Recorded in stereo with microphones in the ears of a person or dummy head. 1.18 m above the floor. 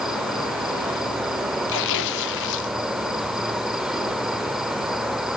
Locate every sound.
0.0 s an insect: 5° right (ahead or behind), 1.1 m
1.7 s tearing paper: 65° left (ahead or behind), 1.8 m